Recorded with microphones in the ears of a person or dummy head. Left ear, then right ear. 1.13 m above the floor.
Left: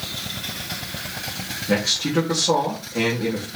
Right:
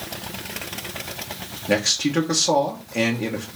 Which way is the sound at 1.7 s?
35° right (ahead or behind).